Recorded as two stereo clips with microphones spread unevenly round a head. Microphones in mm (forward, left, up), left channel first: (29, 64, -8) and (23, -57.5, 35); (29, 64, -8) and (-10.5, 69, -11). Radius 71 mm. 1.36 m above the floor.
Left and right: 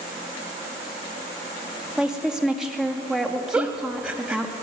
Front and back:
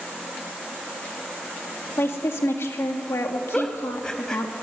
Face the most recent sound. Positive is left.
turn(degrees=-65)